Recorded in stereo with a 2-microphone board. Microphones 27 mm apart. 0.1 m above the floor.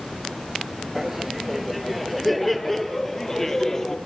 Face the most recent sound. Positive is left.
turn(degrees=15)  # may be behind; listen again after turning